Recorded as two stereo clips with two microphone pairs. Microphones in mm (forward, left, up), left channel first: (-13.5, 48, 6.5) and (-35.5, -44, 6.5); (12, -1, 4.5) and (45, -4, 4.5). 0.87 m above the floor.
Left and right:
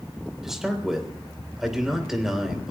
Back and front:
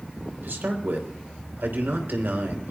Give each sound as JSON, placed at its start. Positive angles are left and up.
{"t": 0.4, "sound": "a man speaking", "azimuth_deg": -20, "distance_m": 3.5}